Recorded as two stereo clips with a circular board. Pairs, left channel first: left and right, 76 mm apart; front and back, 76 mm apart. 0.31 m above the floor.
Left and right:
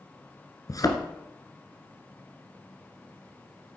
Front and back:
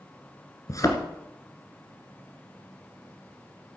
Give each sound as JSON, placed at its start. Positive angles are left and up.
{"t": 0.7, "sound": "a thud", "azimuth_deg": 45, "distance_m": 1.9}